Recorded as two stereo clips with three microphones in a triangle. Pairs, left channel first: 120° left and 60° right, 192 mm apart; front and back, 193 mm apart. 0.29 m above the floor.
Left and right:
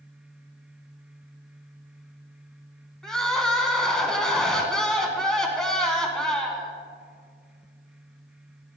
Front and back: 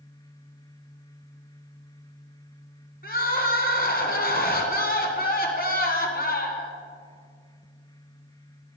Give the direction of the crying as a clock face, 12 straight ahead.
11 o'clock.